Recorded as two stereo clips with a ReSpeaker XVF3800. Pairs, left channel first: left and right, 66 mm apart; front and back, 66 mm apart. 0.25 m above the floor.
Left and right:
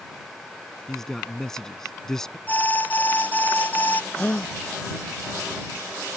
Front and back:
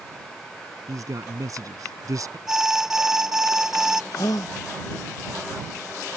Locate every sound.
0.9 s a man speaking: 170° left
2.5 s an alarm: 105° left
4.1 s a gasp: 20° left